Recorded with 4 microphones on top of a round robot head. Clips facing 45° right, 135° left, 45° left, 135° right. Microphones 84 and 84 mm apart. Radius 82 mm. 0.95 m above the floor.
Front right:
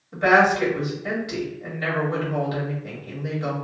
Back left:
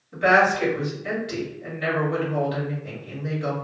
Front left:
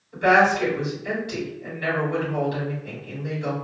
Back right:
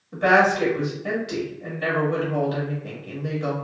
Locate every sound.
0.1 s a woman speaking: 115° right, 1.9 m